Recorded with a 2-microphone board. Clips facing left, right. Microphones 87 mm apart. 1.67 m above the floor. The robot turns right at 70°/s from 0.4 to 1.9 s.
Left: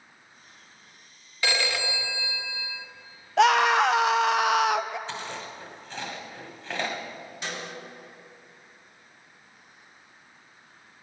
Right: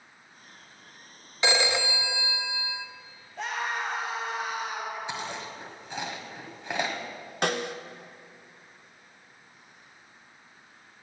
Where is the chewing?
15° right (ahead or behind), 1.9 m.